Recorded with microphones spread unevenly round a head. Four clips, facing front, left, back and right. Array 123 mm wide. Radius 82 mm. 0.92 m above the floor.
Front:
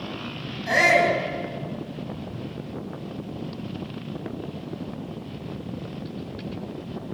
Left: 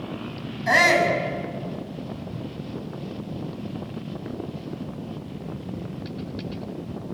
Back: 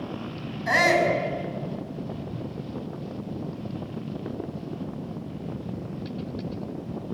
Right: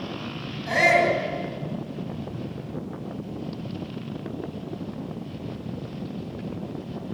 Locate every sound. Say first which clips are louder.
0.7 s a shout: left 1 dB, front 1 dB; 90° left, 7.5 m